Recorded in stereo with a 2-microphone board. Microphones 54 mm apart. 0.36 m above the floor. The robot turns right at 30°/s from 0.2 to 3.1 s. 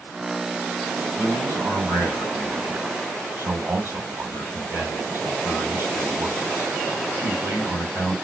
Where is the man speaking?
120° right, 3 m; by 8.2 s 60° right, 3 m.